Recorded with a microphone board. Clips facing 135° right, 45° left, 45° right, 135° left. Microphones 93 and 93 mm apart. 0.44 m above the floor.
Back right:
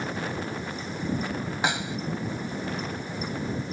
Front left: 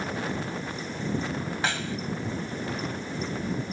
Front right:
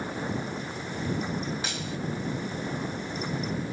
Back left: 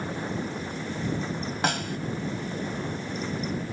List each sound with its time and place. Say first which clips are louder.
1.6 s a snare drum: back right 3 dB, back left 6 dB; 155° left